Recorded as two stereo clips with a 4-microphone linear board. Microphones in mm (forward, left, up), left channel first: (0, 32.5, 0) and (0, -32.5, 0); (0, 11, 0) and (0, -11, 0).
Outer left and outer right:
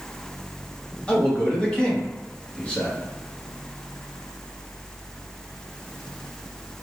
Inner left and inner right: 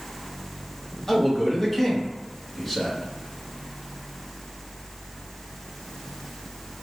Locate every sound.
1.1 s a man speaking: 20° left (ahead or behind), 1.3 m